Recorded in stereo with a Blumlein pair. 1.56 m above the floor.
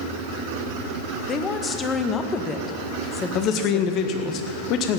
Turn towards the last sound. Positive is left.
turn(degrees=35)